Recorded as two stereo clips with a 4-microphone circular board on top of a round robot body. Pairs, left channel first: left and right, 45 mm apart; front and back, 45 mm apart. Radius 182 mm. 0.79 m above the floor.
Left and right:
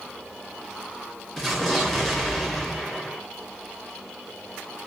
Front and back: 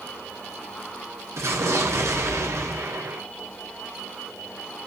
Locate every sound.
1.4 s an explosion: 170° left, 2 m